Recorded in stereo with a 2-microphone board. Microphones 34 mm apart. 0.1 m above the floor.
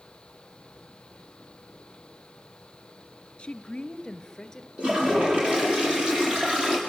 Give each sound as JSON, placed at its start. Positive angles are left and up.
{"t": 3.4, "sound": "a woman speaking", "side_deg": 30, "distance_m": 1.7}
{"t": 4.8, "sound": "a toilet flushing", "side_deg": -30, "distance_m": 7.5}